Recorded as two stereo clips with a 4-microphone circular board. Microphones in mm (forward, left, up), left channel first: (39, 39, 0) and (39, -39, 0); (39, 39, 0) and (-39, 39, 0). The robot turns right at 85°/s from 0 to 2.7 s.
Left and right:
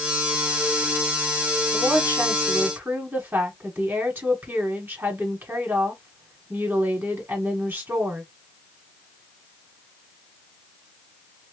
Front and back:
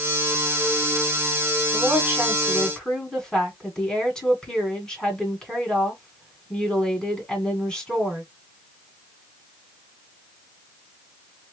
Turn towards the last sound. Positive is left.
turn(degrees=-65)